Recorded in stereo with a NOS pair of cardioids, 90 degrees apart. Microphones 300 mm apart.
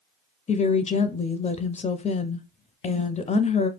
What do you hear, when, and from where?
0.5 s a woman speaking: 25° left, 0.5 m